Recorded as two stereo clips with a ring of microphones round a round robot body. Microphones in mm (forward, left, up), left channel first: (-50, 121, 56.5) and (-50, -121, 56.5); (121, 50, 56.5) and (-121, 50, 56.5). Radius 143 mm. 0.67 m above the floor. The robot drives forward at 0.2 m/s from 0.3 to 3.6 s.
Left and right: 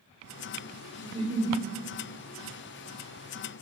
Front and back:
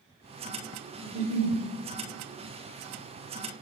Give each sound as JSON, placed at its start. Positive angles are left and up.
{"t": 1.0, "sound": "a giggle", "azimuth_deg": 170, "distance_m": 1.9}